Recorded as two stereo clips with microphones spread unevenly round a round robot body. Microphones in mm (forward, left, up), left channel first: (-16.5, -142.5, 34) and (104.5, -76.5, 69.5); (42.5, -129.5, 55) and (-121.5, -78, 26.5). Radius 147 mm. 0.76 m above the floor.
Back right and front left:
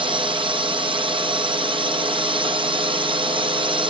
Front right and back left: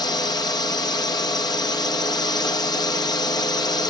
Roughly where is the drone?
Ahead left.